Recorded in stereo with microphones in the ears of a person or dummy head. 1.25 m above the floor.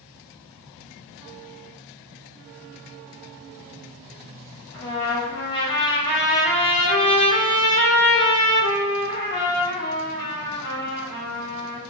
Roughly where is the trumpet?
Left.